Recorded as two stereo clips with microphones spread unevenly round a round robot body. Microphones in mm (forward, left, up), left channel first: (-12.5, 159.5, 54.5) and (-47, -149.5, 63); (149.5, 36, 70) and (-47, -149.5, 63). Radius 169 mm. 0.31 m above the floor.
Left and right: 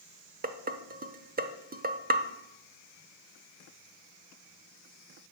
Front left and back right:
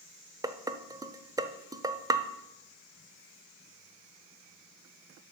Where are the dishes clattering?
75° right, 0.9 m.